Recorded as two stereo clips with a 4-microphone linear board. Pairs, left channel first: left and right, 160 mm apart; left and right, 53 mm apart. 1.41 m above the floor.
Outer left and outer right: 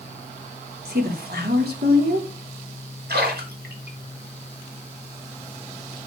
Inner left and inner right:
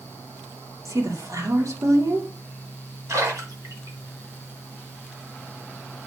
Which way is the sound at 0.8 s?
75° right (ahead or behind).